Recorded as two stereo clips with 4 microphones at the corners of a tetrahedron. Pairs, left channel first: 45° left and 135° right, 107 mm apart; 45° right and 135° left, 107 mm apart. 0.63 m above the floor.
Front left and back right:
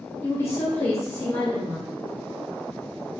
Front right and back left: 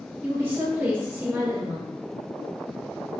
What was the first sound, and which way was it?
A woman speaking, 85° left.